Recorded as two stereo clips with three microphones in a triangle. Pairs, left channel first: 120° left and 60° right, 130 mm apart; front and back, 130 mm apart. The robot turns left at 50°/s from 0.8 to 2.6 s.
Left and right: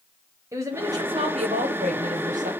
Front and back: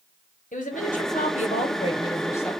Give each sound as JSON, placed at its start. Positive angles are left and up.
{"t": 0.5, "sound": "a woman speaking", "azimuth_deg": 10, "distance_m": 1.2}